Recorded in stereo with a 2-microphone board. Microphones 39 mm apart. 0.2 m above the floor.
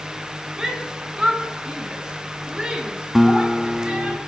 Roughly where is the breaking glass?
No breaking glass in this recording.